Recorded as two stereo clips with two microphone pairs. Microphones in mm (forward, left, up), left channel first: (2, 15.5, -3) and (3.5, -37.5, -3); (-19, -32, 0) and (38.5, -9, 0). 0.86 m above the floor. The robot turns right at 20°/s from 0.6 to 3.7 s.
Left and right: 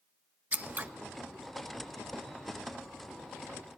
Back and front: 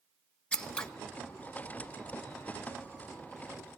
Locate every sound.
0.5 s scissors: 95° right, 1.1 m; by 0.9 s 90° right, 1.1 m